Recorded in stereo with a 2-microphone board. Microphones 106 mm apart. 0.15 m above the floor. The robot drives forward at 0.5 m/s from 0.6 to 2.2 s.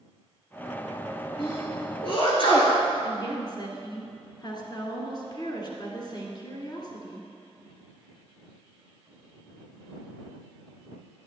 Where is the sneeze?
55° left (ahead or behind), 1.8 m; by 2.8 s 50° left (ahead or behind), 1.9 m.